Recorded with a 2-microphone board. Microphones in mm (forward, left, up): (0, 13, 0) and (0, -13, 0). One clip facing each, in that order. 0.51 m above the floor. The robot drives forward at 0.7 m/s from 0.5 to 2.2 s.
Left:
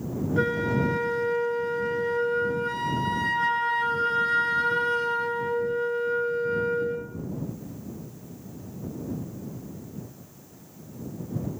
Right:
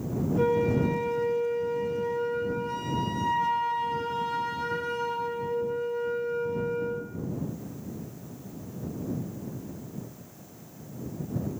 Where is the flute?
75° left (ahead or behind), 4.5 m; by 7.1 s 85° left, 4.5 m.